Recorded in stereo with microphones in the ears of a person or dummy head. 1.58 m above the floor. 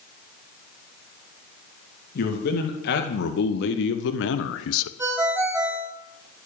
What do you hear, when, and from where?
2.1 s a man speaking: 65° left (ahead or behind), 2.5 m; by 4.9 s 85° left, 0.8 m
5.0 s a ringtone: 20° right (ahead or behind), 4.5 m